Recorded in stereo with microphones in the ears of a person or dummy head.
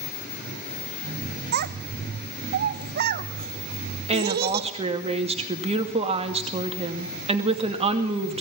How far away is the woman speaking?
About 2.5 m.